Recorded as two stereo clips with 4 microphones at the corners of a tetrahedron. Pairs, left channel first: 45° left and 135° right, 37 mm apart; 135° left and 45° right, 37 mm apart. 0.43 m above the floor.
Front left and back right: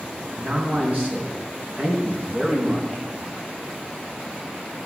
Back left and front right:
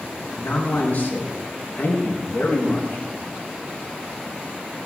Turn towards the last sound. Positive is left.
turn(degrees=180)